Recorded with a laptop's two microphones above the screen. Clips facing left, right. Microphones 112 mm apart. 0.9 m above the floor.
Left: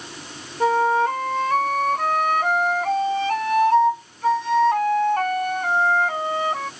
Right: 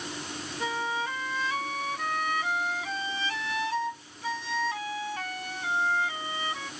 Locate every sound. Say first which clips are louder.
0.6 s a flute: left 14 dB; 60° left (ahead or behind)